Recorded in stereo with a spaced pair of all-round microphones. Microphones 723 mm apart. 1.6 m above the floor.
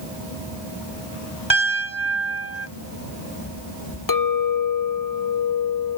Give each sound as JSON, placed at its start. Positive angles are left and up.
{"t": 1.5, "sound": "a piano", "side_deg": 10, "distance_m": 2.5}
{"t": 4.1, "sound": "a clink", "side_deg": 30, "distance_m": 0.6}